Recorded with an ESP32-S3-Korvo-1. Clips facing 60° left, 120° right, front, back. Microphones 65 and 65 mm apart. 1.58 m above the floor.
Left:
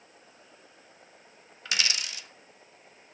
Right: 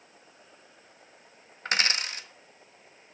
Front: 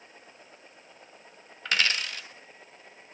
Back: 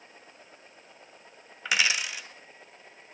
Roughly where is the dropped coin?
Right.